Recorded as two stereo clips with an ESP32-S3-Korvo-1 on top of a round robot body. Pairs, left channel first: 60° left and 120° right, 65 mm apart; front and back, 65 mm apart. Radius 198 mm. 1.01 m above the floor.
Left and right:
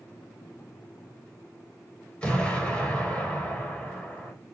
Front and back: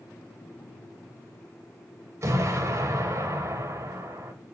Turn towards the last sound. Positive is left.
turn(degrees=135)